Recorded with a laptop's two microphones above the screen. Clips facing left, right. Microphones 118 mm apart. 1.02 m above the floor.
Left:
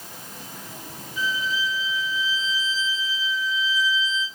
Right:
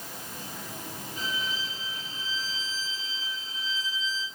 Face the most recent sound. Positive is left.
turn(degrees=-60)  # may be behind; listen again after turning